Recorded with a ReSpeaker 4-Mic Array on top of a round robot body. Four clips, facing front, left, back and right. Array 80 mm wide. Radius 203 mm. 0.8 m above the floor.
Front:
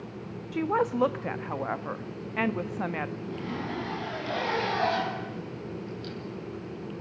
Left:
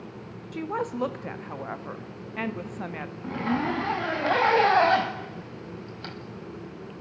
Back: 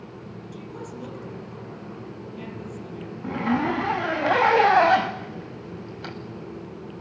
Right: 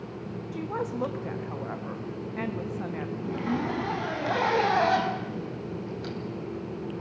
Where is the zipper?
160° left, 2.5 m.